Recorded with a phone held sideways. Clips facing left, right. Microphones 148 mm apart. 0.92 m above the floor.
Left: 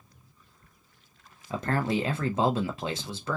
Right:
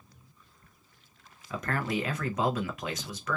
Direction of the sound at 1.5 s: 30° left (ahead or behind).